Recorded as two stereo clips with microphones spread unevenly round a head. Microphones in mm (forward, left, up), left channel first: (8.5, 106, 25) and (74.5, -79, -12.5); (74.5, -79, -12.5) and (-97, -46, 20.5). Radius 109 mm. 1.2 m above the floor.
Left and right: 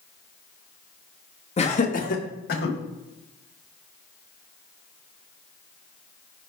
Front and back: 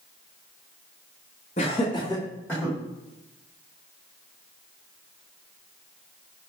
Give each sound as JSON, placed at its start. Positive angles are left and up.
{"t": 1.6, "sound": "laughter", "azimuth_deg": 50, "distance_m": 2.0}